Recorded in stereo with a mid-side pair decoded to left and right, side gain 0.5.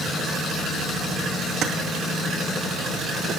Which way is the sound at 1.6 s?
65° right.